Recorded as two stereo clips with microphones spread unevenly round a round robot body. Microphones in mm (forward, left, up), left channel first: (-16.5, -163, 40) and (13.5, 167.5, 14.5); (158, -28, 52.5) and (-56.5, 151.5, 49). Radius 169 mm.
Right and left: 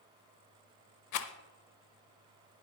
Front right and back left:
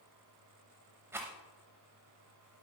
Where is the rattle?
135° right, 0.6 m.